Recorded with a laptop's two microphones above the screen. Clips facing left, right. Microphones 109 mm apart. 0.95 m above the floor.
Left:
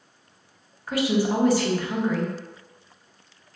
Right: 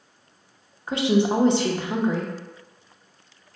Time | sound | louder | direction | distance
0.9 | a woman speaking | right 2 dB | 25° right (ahead or behind) | 0.5 m